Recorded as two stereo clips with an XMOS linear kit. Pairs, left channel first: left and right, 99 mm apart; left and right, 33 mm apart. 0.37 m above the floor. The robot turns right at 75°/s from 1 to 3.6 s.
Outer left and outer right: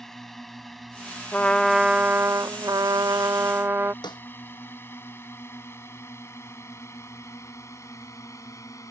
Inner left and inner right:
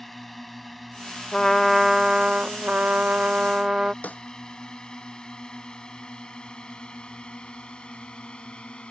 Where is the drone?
5° left (ahead or behind); by 8.9 s 30° left (ahead or behind).